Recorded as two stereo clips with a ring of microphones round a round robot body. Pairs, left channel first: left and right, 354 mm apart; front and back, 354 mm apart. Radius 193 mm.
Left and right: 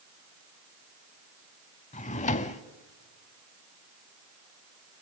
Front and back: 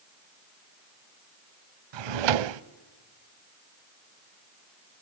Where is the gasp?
No gasp in this recording.